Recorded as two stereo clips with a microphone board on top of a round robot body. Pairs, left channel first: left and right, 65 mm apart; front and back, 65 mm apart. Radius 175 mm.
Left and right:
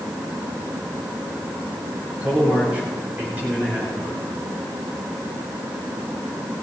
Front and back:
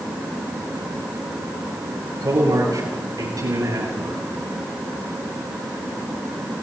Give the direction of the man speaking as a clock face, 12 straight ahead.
5 o'clock.